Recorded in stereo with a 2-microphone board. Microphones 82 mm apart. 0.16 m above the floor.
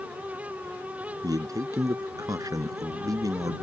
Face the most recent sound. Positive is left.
turn(degrees=-50)  # may be behind; listen again after turning